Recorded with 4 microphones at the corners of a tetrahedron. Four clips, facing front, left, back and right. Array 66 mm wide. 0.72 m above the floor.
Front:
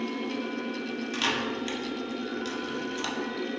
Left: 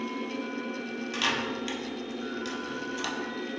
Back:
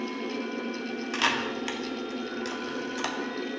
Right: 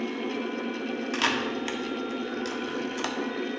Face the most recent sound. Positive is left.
turn(degrees=-135)